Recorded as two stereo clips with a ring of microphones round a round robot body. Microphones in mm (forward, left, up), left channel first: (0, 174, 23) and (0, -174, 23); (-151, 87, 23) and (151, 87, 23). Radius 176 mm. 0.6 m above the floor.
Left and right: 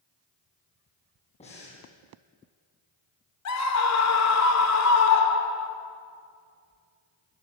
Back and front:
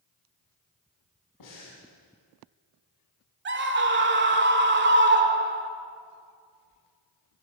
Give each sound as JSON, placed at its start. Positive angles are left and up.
{"t": 1.4, "sound": "breathing", "azimuth_deg": 165, "distance_m": 8.0}
{"t": 3.5, "sound": "a scream", "azimuth_deg": 50, "distance_m": 2.0}